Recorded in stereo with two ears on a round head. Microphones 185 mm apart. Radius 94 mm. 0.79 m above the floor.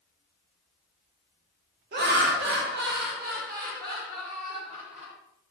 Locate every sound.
1.9 s laughter: 45° right (ahead or behind), 0.5 m; by 5.1 s 40° right (ahead or behind), 1.8 m